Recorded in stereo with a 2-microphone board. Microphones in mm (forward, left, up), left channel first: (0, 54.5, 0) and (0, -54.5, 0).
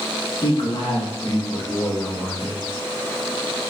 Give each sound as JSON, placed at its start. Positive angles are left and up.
{"t": 0.4, "sound": "a man speaking", "side_deg": 55, "distance_m": 2.0}